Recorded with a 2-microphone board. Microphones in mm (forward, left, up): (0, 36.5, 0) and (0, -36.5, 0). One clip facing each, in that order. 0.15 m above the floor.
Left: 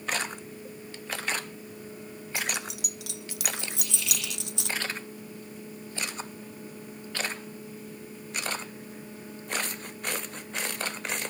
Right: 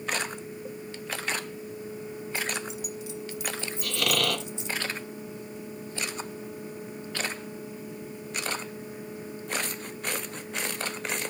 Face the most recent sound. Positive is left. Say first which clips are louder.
# right 10 dB
turn(degrees=-70)  # may be behind; listen again after turning